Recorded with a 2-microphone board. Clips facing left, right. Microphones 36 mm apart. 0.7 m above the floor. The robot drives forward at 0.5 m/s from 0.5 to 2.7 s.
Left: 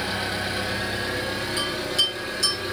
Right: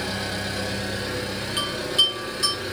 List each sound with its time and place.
0.0 s an engine running: 20° left (ahead or behind), 1.0 m; by 2.7 s 10° left (ahead or behind), 2 m
1.6 s a bell: 40° right (ahead or behind), 2 m; by 2.7 s 35° right (ahead or behind), 2.5 m